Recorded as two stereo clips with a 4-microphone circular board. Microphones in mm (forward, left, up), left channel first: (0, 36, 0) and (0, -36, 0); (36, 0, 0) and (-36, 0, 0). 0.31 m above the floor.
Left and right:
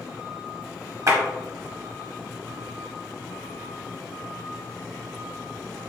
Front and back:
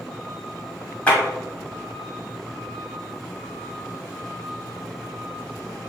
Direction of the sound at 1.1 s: 65° right.